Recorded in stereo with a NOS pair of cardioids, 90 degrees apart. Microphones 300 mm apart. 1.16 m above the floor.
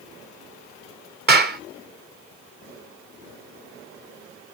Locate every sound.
1.3 s a clap: 35° right, 1.9 m